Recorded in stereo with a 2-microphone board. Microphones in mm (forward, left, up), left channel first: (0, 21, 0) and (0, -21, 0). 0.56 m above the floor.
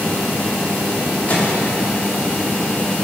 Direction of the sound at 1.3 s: 35° left (ahead or behind).